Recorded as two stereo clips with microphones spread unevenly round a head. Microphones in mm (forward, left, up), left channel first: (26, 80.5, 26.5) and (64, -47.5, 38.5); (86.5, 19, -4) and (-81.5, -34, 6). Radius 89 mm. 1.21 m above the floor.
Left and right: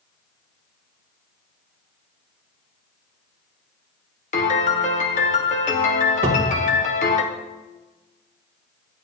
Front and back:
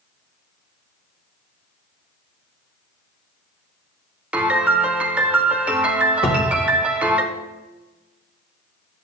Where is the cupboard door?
40° right, 2.0 m.